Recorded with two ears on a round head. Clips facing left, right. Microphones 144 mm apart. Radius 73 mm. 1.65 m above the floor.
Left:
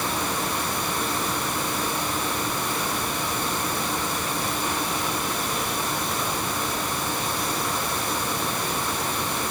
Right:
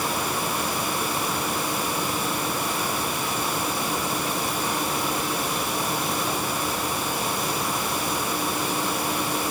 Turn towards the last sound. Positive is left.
No sound to turn to.